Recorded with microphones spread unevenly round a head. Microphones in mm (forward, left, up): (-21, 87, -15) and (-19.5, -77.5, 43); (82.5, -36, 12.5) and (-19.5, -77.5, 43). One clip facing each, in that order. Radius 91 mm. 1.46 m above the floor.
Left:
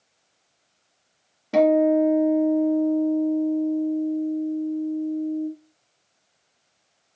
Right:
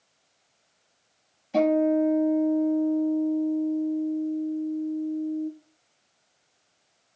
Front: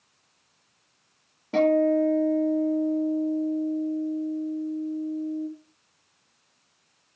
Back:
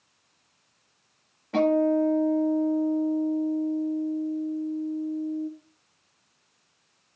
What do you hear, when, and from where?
1.5 s a guitar: 100° left, 4 m